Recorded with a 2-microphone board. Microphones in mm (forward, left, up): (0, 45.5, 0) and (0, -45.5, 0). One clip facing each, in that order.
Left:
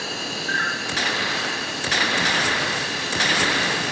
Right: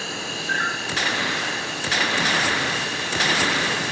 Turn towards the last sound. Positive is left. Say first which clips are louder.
# left 1 dB
turn(degrees=75)  # may be behind; listen again after turning